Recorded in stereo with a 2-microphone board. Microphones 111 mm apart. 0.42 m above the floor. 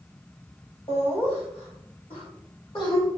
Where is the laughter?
65° left (ahead or behind), 2 m; by 3.1 s 45° left (ahead or behind), 1.9 m.